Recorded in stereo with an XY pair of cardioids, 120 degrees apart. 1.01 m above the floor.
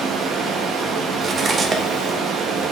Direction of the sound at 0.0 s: 60° right.